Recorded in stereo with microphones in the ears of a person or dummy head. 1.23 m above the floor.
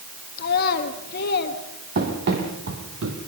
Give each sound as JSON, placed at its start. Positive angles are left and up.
{"t": 0.4, "sound": "a child speaking", "side_deg": 55, "distance_m": 1.4}
{"t": 1.9, "sound": "running footsteps", "side_deg": -55, "distance_m": 4.0}